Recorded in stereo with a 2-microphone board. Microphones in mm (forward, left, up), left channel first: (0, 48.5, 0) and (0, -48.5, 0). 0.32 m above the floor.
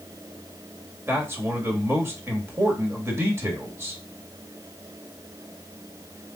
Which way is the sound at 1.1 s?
25° right (ahead or behind).